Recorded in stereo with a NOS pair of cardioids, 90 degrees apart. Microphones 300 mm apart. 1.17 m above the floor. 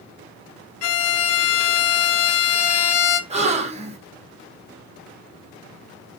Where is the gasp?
20° right, 0.8 m.